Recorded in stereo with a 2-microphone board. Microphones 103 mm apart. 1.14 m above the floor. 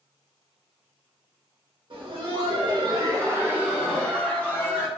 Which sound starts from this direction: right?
Laughter, at 1.9 s.